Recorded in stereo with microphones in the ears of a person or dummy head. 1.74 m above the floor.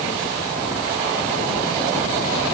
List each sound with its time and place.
Only background noise.